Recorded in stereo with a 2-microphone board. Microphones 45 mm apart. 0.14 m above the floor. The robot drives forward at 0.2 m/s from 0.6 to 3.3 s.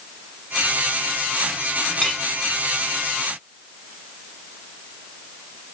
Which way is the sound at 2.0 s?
10° left (ahead or behind).